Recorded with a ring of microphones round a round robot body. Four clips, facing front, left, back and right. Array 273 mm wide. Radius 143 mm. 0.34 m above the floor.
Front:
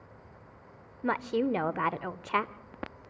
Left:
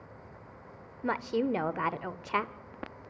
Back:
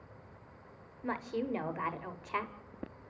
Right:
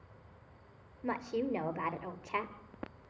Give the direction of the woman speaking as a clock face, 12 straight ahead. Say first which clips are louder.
Left 5 dB, front 7 dB; 11 o'clock.